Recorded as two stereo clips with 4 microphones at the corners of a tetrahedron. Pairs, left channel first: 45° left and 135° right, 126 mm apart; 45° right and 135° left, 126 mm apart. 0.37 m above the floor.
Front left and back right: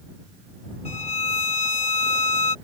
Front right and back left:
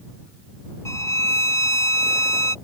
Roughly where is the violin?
Ahead.